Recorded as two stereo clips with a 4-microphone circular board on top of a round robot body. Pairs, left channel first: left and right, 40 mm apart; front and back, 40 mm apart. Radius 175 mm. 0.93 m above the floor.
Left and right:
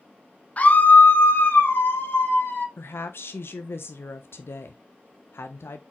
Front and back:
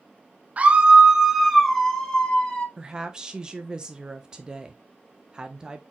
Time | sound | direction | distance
0.6 | a scream | 135° left | 1.0 m
2.8 | a woman speaking | 110° left | 0.5 m